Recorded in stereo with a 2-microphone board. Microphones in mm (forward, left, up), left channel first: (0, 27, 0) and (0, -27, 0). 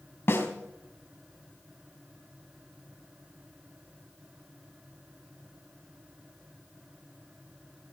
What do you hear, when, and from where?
0.3 s a snare drum: 50° left (ahead or behind), 3 m